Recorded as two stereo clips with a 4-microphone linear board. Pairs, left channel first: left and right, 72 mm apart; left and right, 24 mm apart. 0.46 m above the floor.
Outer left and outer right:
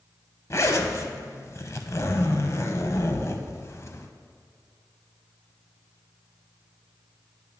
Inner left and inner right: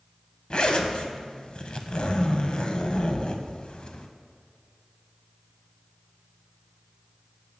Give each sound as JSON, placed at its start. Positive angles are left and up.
{"t": 0.5, "sound": "a zipper", "side_deg": 45, "distance_m": 0.6}